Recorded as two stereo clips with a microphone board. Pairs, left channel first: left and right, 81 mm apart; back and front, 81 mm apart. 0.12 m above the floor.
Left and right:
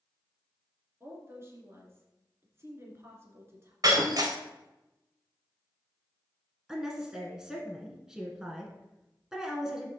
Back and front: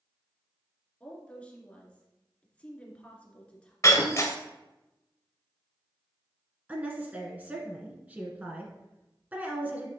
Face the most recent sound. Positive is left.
turn(degrees=-20)